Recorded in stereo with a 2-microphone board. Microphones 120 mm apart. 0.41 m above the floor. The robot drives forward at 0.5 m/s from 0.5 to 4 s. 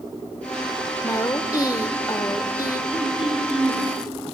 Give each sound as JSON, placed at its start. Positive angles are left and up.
{"t": 1.0, "sound": "a woman speaking", "side_deg": 30, "distance_m": 1.1}
{"t": 2.9, "sound": "throat clearing", "side_deg": -10, "distance_m": 7.5}